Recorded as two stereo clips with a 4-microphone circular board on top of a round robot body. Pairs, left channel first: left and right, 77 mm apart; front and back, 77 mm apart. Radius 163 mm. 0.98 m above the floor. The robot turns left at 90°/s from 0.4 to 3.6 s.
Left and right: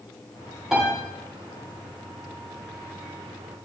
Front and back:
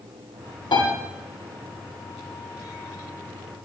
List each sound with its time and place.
0.7 s a piano: straight ahead, 9 m; by 0.9 s 20° right, 9 m